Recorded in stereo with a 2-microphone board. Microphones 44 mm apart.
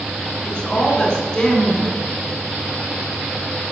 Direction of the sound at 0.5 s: 25° left (ahead or behind).